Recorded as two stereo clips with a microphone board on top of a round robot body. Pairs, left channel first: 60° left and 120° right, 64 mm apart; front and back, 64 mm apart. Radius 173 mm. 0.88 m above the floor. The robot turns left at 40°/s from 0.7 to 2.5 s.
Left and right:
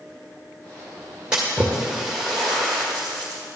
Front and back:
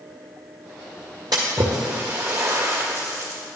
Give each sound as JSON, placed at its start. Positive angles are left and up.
{"t": 1.3, "sound": "a splash", "azimuth_deg": 165, "distance_m": 0.6}